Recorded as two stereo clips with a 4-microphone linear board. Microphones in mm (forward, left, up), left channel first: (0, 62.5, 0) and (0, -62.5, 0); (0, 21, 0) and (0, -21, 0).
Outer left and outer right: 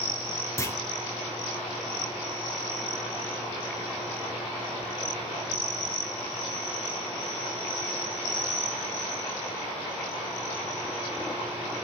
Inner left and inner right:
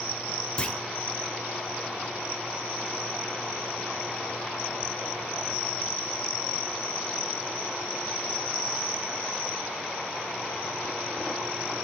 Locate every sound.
0.6 s a clunk: 25° left (ahead or behind), 0.8 m